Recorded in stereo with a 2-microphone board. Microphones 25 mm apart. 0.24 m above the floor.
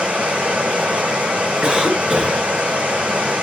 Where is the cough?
40° right (ahead or behind), 1.9 m.